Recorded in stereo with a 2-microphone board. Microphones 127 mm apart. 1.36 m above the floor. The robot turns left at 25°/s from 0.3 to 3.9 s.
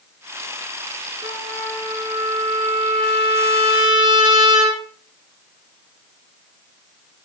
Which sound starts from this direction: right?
A trumpet, at 1.2 s.